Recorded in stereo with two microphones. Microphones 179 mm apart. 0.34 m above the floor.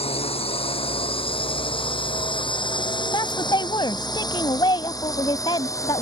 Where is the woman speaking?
25° left (ahead or behind).